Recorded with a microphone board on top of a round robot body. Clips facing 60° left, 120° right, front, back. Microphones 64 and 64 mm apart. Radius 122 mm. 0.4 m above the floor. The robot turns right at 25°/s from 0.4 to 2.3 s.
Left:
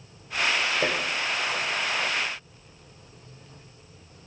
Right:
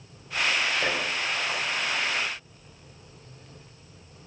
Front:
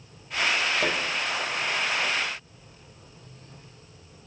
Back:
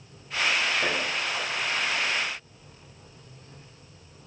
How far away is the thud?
About 6 m.